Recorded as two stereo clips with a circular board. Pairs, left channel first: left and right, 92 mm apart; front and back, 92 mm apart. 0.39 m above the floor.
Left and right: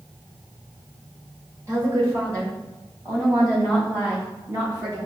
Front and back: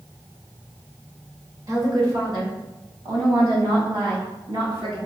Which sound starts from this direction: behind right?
A woman speaking, at 1.7 s.